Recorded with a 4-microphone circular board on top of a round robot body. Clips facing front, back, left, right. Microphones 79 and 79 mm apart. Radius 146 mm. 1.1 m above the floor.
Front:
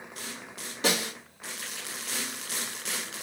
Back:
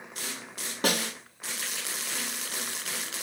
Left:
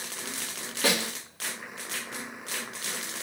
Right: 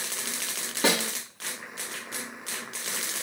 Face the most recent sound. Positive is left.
turn(degrees=-150)